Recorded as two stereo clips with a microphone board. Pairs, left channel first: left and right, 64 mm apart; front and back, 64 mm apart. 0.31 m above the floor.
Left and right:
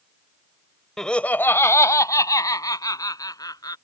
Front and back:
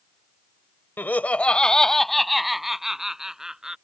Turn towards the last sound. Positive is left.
turn(degrees=100)